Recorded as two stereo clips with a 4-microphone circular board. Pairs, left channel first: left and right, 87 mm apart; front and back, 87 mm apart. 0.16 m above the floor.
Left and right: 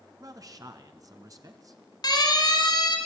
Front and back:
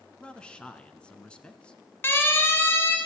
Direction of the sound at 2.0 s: 60° left.